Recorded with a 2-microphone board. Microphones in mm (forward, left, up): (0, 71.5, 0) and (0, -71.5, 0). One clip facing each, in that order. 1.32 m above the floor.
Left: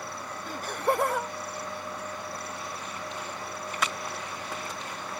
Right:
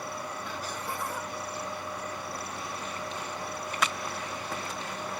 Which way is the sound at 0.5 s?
45° left (ahead or behind).